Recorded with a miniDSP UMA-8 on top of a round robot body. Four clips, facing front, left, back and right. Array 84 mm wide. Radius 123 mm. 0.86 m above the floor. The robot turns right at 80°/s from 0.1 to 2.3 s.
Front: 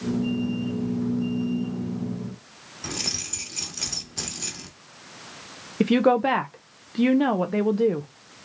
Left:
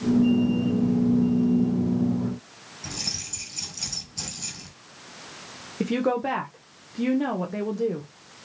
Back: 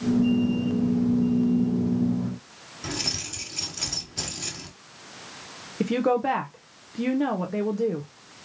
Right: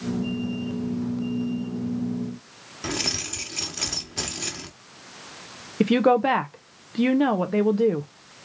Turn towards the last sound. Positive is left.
turn(degrees=-50)